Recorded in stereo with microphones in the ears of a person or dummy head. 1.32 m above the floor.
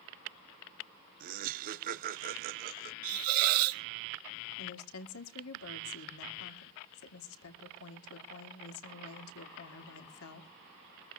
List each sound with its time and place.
1.2 s laughter: 50° right (ahead or behind), 1.0 m
3.0 s a hiss: 40° right (ahead or behind), 0.6 m
4.6 s a woman speaking: 85° left, 2.5 m